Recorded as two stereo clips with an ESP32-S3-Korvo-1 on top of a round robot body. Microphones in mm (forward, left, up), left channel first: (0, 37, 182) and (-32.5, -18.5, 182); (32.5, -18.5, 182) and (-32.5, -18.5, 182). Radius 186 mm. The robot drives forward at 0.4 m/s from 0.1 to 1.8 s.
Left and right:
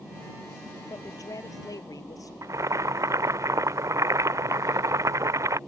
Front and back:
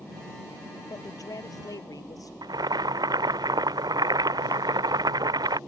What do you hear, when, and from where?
0.9 s a woman speaking: 30° left
2.4 s boiling: 160° right